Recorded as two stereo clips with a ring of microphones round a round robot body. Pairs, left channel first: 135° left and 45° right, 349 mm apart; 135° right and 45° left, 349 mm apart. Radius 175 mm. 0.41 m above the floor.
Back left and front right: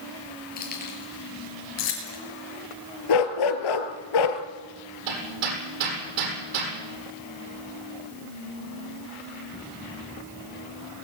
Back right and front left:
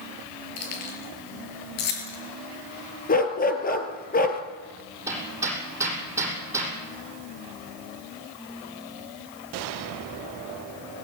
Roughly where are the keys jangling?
Behind.